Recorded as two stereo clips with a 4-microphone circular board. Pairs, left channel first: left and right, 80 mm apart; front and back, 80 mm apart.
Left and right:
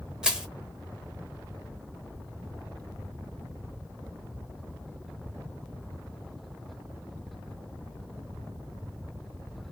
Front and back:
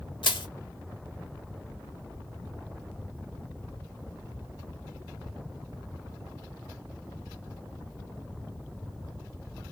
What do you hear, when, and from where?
0.2 s crushing: 10° right, 0.6 m